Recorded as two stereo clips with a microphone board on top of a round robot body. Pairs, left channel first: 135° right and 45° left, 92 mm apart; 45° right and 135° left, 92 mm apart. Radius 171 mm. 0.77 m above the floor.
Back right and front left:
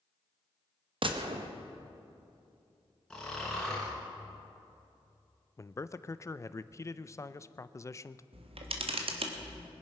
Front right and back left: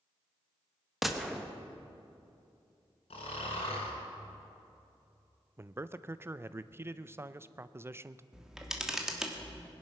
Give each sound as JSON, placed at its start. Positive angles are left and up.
{"t": 1.0, "sound": "a gunshot", "azimuth_deg": 45, "distance_m": 1.3}
{"t": 3.1, "sound": "snoring", "azimuth_deg": -50, "distance_m": 3.0}
{"t": 5.6, "sound": "a man speaking", "azimuth_deg": -175, "distance_m": 0.6}
{"t": 8.3, "sound": "a camera shutter", "azimuth_deg": 50, "distance_m": 1.5}